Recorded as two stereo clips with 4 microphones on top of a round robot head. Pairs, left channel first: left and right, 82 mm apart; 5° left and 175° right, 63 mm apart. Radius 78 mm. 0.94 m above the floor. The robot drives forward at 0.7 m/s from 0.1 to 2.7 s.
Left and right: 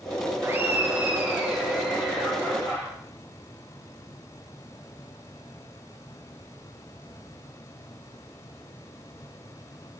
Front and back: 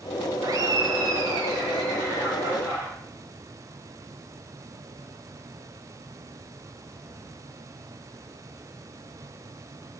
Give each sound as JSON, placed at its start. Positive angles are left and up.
{"t": 0.4, "sound": "laughter", "azimuth_deg": -150, "distance_m": 0.5}